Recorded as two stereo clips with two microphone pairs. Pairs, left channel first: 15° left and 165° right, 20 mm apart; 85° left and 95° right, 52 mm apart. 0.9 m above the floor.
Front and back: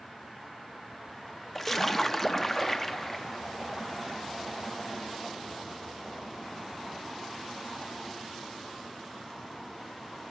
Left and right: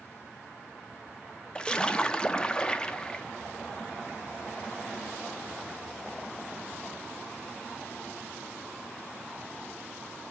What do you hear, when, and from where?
1.6 s a splash: 55° left, 0.5 m